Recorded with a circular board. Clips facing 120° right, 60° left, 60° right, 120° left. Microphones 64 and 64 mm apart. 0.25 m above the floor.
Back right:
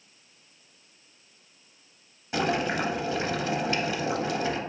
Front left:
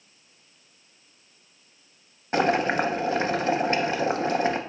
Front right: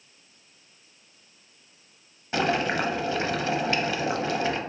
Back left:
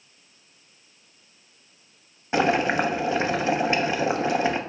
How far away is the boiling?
About 0.5 m.